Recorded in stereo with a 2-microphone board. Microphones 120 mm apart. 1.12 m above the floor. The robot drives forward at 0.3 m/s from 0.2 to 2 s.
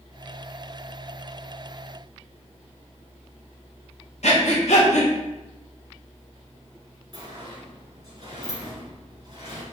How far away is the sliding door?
About 2 m.